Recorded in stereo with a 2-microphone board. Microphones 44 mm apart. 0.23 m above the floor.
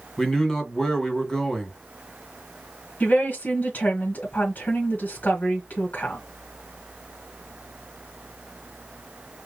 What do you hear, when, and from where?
0.2 s a man speaking: 15° left (ahead or behind), 1.7 m
3.0 s a woman speaking: 45° left (ahead or behind), 2.5 m